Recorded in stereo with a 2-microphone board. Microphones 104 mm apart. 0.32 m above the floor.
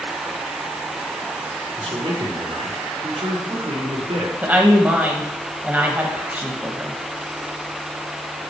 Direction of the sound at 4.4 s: 20° right (ahead or behind).